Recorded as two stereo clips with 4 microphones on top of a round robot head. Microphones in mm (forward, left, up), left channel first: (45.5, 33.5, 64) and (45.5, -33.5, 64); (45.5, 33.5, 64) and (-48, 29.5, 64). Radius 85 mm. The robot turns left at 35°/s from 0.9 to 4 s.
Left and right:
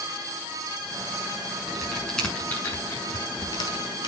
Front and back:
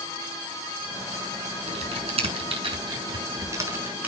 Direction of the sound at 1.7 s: 170° right.